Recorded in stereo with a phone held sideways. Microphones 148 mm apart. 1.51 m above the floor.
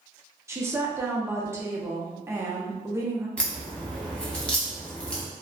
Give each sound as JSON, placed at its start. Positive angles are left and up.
{"t": 0.5, "sound": "a woman speaking", "side_deg": -20, "distance_m": 0.6}
{"t": 3.4, "sound": "a crack", "side_deg": 5, "distance_m": 0.7}